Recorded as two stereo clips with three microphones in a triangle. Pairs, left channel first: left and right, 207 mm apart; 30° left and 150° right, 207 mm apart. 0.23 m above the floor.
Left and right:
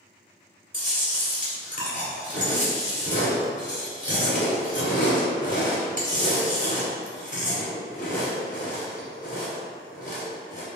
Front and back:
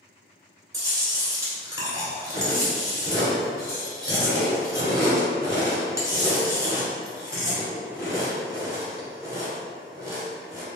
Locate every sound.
0.7 s chewing: 135° left, 1.3 m